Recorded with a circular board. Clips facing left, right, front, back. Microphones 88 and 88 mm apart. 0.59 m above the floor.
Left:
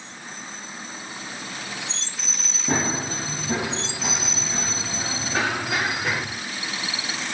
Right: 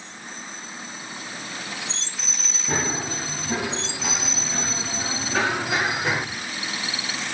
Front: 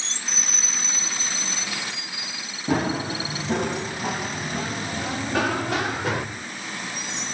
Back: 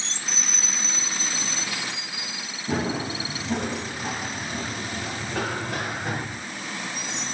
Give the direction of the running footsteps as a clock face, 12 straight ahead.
11 o'clock.